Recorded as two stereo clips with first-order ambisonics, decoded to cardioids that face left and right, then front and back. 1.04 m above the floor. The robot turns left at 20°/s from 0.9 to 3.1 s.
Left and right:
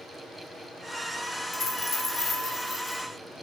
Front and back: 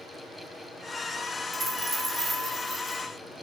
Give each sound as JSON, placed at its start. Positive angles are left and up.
{"t": 1.5, "sound": "a dropped coin", "azimuth_deg": 125, "distance_m": 0.6}